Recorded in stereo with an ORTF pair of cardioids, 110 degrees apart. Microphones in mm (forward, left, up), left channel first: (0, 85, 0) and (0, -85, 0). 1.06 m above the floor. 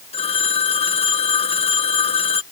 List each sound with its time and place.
0.1 s a phone ringing: 35° left